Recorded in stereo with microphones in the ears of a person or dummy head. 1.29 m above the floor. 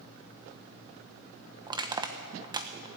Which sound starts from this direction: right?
Crushing, at 1.7 s.